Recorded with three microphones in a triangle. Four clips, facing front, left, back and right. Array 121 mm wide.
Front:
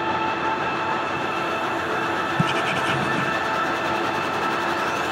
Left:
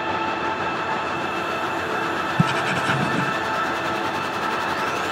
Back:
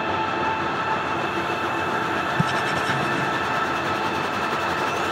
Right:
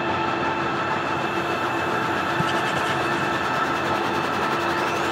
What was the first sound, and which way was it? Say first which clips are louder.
Writing: left 1 dB, front 1 dB; 75° left.